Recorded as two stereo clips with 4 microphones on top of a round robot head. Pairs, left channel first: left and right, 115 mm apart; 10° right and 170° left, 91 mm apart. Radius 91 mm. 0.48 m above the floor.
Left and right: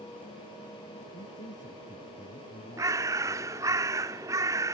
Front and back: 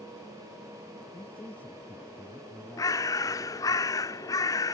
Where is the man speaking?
60° left.